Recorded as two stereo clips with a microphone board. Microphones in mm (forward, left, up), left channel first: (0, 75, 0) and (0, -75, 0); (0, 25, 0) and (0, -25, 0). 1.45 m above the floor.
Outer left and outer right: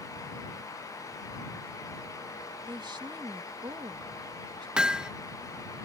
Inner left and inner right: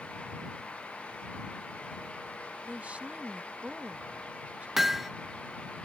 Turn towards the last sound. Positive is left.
turn(degrees=-5)  # may be behind; listen again after turning